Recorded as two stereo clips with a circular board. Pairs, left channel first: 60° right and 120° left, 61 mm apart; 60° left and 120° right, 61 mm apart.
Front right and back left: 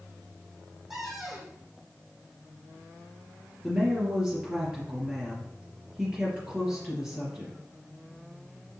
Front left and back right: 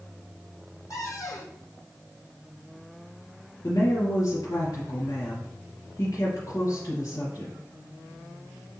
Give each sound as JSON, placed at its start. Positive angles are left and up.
{"t": 0.9, "sound": "a cupboard door", "azimuth_deg": 35, "distance_m": 3.0}
{"t": 3.6, "sound": "a woman speaking", "azimuth_deg": 45, "distance_m": 4.5}